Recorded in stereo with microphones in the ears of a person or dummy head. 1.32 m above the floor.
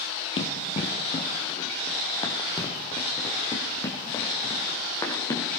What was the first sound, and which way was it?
Running footsteps, 35° left (ahead or behind).